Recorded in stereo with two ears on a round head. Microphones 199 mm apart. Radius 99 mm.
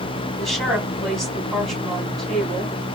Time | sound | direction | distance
0.4 | a woman speaking | centre (ahead or behind) | 3 m